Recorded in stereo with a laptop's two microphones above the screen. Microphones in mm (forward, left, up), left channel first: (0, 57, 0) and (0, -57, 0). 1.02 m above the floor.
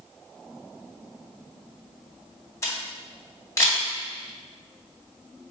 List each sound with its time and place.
2.6 s a camera shutter: 25° left (ahead or behind), 1.3 m